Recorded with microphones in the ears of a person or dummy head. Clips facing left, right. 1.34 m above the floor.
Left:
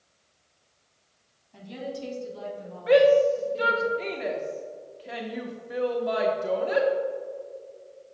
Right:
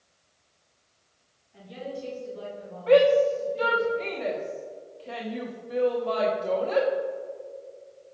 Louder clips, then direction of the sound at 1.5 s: Left 1 dB; 75° left (ahead or behind).